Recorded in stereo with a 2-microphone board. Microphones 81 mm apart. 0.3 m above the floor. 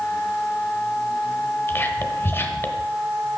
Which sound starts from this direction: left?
Whispering, at 1.7 s.